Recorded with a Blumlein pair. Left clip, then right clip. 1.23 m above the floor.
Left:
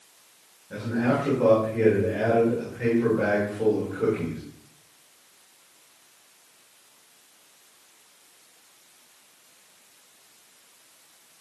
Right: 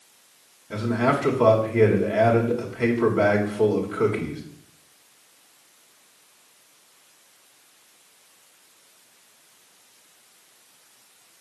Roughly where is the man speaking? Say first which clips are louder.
Right 3 dB; ahead right.